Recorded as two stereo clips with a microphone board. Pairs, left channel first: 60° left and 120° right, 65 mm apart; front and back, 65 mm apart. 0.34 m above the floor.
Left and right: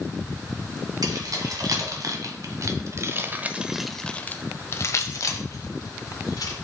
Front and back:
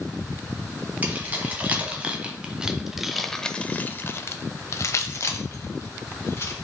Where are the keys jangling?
115° right, 1.8 m; by 6.5 s 45° left, 1.7 m.